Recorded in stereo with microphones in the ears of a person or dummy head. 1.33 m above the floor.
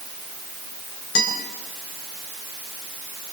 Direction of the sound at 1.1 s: 75° left (ahead or behind).